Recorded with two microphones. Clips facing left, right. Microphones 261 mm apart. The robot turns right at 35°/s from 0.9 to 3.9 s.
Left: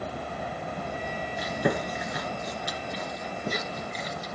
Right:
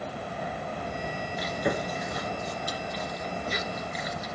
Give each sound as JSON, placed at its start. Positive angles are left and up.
{"t": 1.4, "sound": "chewing", "side_deg": 55, "distance_m": 2.5}